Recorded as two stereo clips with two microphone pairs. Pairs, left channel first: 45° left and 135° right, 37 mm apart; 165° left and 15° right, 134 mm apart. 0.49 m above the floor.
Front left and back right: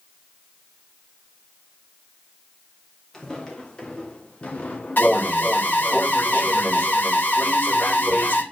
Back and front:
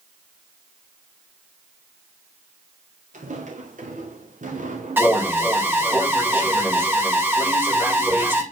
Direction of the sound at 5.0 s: 55° left.